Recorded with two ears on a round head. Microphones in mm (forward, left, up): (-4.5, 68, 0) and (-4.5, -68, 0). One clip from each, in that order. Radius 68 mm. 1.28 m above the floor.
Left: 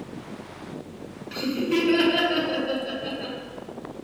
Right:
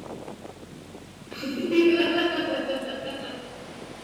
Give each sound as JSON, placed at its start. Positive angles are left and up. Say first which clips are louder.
{"t": 1.3, "sound": "laughter", "louder": "right 1 dB", "side_deg": 30, "distance_m": 1.2}